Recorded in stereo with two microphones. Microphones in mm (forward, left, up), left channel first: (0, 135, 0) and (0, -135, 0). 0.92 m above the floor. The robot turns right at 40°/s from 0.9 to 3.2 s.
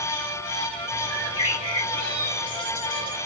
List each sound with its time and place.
1.1 s a bird: 55° left, 2.5 m; by 3.2 s 140° left, 2.5 m